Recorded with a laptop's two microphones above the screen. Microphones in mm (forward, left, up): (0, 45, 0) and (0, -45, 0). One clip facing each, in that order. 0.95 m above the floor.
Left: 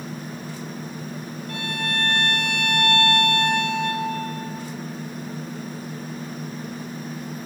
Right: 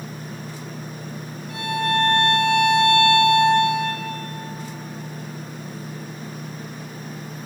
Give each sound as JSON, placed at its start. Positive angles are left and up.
{"t": 1.5, "sound": "a violin", "side_deg": 65, "distance_m": 5.5}